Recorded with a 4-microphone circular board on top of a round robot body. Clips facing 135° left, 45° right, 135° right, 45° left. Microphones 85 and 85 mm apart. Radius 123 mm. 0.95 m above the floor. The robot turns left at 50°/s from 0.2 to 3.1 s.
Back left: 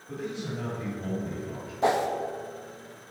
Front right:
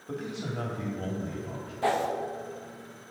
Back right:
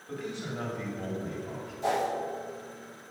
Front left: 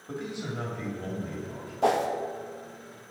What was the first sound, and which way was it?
A man speaking, 25° right.